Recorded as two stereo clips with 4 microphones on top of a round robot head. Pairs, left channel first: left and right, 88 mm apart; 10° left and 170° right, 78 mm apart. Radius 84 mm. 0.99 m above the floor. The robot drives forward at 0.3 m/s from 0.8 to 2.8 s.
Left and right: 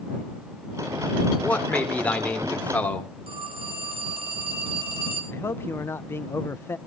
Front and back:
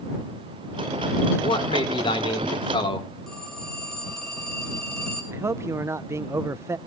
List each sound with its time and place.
1.4 s a man speaking: 15° left, 3.5 m
3.3 s a phone ringing: 75° right, 3.5 m
5.3 s a man speaking: 145° left, 0.5 m